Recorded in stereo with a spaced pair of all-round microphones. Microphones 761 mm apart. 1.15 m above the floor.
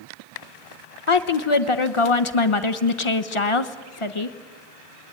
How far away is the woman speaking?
About 1.1 m.